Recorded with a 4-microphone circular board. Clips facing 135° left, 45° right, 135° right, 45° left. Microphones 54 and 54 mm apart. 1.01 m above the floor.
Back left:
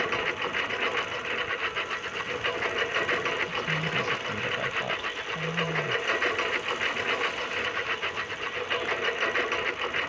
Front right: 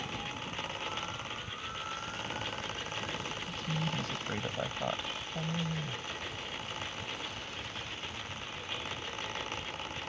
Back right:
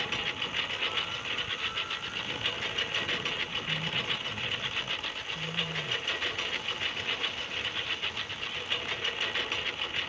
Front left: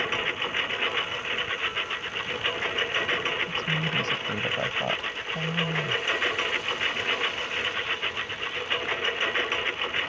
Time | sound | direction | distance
0.0 | a lawn mower | 100° left | ?
3.5 | a woman speaking | 40° left | ?